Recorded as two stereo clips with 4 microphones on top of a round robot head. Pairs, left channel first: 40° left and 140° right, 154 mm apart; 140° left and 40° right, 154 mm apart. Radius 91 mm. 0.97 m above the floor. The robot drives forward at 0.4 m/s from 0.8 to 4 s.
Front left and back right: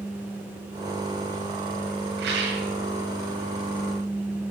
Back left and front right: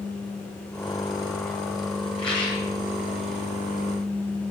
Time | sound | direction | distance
2.2 | a rattle | 160° right | 9 m